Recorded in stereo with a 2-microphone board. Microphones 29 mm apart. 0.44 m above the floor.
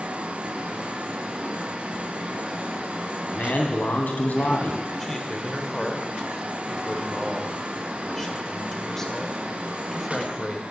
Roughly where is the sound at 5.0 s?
Centre.